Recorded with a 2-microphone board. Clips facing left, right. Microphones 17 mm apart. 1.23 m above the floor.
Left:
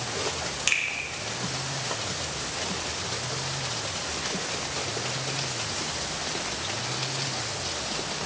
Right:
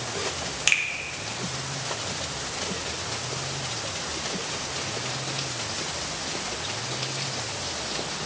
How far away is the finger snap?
About 0.8 m.